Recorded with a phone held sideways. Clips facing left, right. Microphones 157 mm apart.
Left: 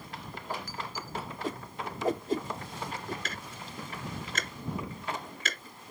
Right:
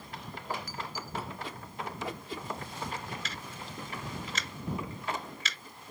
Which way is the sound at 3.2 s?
50° left (ahead or behind).